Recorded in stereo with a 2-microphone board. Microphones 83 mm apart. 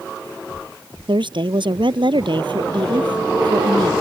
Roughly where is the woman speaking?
Right.